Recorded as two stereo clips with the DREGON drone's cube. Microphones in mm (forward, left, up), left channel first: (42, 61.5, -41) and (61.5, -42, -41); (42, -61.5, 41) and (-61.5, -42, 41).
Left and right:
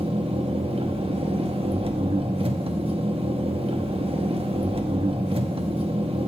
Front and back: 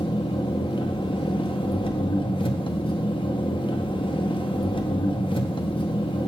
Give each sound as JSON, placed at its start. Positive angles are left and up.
{"t": 0.0, "sound": "an engine running", "azimuth_deg": -50, "distance_m": 1.0}